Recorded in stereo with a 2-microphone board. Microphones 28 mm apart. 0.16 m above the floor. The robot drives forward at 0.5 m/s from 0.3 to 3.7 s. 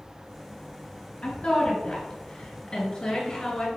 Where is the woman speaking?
40° left (ahead or behind), 2.5 m; by 3.7 s 30° left (ahead or behind), 3 m.